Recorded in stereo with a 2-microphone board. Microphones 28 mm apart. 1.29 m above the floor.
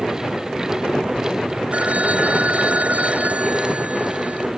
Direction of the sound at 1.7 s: 55° right (ahead or behind).